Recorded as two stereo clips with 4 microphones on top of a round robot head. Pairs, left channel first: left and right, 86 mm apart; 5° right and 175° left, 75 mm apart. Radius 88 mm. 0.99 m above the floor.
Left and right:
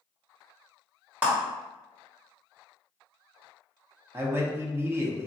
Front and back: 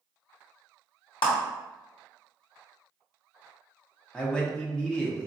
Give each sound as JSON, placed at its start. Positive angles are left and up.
{"t": 1.2, "sound": "a clap", "azimuth_deg": -15, "distance_m": 1.2}
{"t": 4.1, "sound": "a man speaking", "azimuth_deg": -70, "distance_m": 0.9}